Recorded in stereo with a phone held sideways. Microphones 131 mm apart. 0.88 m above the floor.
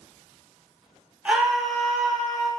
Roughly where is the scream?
Centre.